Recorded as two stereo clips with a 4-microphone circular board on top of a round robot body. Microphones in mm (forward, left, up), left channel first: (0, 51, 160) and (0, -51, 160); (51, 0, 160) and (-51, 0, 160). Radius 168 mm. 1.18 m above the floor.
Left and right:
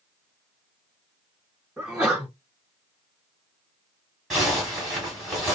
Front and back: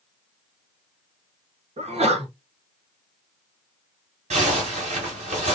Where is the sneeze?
165° right, 1.4 m.